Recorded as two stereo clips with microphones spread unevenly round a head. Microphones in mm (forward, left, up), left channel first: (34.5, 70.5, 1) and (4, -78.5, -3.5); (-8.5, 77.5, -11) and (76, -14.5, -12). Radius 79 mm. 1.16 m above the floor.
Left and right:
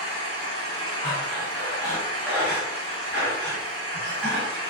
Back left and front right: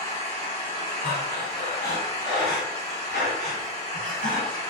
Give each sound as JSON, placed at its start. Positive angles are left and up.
{"t": 0.0, "sound": "an engine running", "azimuth_deg": -155, "distance_m": 0.8}
{"t": 1.0, "sound": "breathing", "azimuth_deg": 155, "distance_m": 1.4}